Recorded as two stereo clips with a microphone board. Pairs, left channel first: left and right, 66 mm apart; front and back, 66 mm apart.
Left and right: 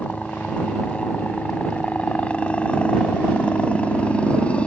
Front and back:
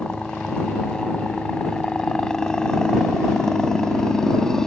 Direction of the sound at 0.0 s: 55° left.